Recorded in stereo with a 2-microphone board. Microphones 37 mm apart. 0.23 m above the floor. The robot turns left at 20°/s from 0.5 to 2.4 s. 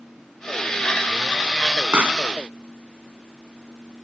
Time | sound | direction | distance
1.9 | a pop | 50° right (ahead or behind) | ?